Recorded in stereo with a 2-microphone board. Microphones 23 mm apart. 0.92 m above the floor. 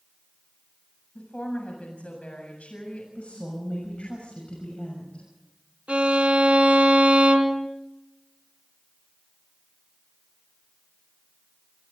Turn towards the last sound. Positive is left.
turn(degrees=-60)  # may be behind; listen again after turning